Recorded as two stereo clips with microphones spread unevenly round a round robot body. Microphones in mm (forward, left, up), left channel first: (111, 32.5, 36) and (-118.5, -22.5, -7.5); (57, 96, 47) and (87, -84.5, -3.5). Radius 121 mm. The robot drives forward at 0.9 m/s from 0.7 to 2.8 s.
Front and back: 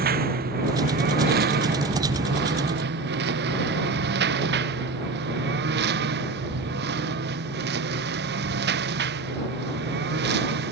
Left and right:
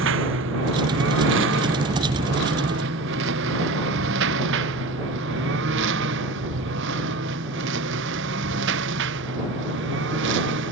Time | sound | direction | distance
0.0 | a lawn mower | 110° right | ?